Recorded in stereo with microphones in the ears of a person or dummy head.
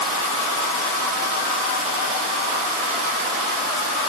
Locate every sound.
Only background noise.